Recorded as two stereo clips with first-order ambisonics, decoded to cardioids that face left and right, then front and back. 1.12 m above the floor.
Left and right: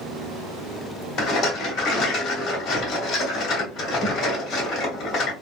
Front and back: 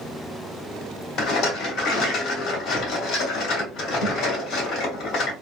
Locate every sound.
1.2 s a rattle: 40° left, 1.3 m